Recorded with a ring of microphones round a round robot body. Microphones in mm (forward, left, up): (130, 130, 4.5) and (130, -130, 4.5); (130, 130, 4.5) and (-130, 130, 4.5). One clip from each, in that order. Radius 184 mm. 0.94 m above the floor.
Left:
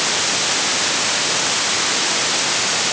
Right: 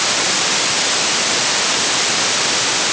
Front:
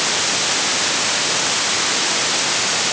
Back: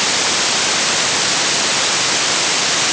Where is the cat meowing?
No cat meowing in this recording.